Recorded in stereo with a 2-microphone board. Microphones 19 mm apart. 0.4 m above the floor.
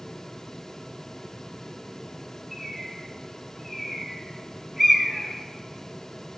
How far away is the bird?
About 0.9 m.